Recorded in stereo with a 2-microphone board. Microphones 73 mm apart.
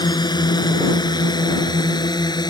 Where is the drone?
85° left; by 2.5 s 75° left (ahead or behind).